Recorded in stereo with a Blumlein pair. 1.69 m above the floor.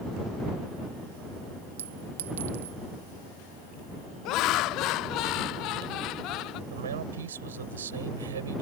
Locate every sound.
1.8 s a clink: 60° right
4.2 s laughter: 40° left
6.7 s a man speaking: 65° right